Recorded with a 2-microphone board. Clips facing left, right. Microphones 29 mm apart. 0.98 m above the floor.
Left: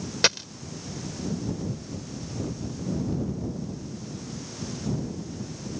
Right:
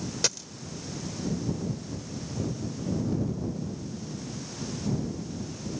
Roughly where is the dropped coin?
Left.